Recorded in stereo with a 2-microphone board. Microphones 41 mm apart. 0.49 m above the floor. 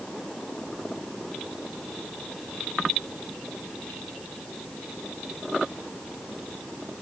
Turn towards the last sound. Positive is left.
No sound to turn to.